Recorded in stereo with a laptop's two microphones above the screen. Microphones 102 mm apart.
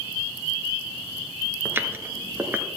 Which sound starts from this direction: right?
Footsteps, at 1.6 s.